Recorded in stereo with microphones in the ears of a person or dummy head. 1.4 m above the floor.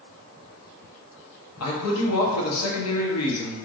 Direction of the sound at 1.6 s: 80° left.